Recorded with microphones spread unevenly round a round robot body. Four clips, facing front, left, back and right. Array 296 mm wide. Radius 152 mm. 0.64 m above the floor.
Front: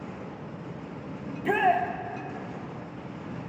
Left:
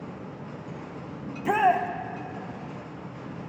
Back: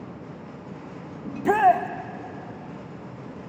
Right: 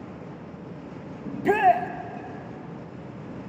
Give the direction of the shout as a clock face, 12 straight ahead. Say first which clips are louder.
Right 3 dB, back 5 dB; 5 o'clock.